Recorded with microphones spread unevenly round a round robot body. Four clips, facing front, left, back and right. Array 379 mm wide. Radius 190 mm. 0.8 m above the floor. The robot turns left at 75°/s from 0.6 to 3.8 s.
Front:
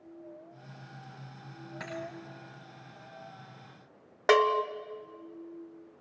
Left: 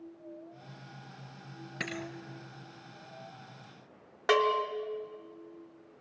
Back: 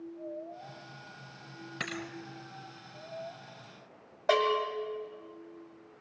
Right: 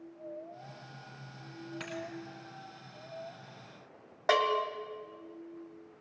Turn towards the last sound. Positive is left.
turn(degrees=25)